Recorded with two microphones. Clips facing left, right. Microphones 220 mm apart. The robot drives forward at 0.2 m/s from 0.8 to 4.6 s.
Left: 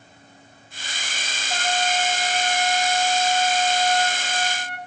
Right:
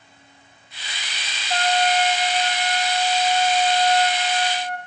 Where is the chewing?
No chewing in this recording.